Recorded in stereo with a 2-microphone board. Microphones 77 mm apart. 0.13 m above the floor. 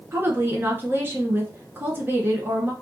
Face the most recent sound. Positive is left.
turn(degrees=-30)  # may be behind; listen again after turning